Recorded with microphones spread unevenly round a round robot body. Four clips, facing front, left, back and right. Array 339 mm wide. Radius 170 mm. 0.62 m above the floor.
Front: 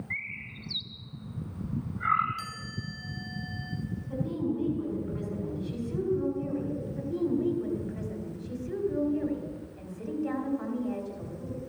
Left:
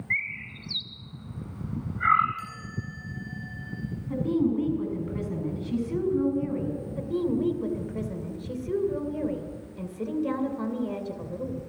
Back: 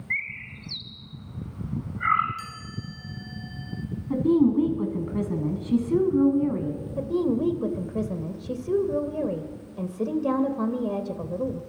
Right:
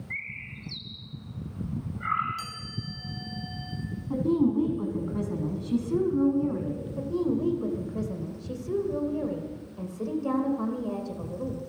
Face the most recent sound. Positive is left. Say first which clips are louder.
# even, back 5 dB
turn(degrees=175)